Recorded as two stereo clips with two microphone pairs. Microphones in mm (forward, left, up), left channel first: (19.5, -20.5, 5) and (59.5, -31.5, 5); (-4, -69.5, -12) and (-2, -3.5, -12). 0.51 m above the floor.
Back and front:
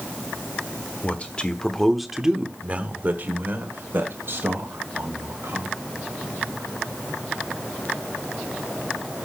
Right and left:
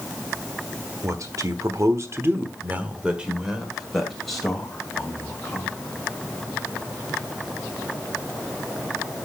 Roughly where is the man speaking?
Behind left.